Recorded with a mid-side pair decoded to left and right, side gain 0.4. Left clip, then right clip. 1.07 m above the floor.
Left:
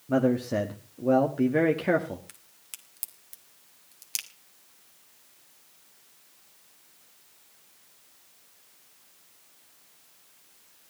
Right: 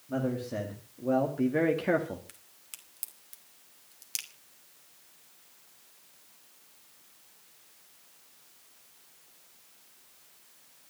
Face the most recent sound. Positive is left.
turn(degrees=25)